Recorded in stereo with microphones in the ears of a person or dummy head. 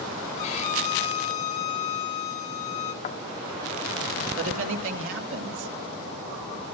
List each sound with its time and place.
0.4 s a violin: 40° left (ahead or behind), 7 m
3.0 s a thud: 35° left (ahead or behind), 1.3 m
4.4 s a woman speaking: 75° right (ahead or behind), 2.5 m